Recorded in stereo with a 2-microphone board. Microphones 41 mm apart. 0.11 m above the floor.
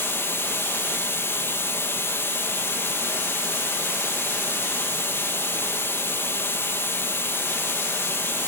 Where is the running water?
65° left (ahead or behind), 1.1 m.